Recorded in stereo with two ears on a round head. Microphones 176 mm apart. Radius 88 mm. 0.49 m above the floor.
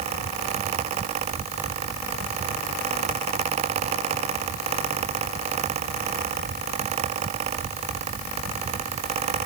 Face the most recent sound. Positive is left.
No sound to turn to.